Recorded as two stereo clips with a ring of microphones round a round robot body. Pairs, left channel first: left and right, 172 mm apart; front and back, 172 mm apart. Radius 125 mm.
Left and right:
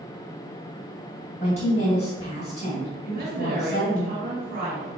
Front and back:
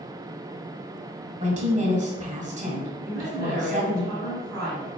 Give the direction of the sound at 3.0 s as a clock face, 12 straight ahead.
3 o'clock.